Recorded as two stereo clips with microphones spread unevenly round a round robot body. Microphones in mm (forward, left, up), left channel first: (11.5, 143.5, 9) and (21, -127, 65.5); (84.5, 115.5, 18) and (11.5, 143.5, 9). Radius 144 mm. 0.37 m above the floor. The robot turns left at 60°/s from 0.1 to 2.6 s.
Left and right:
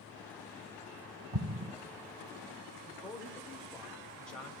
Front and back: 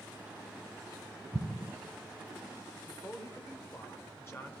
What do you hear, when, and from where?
1.3 s an explosion: 105° right, 1.0 m; by 1.7 s 130° right, 1.0 m
2.9 s a man speaking: 25° left, 1.5 m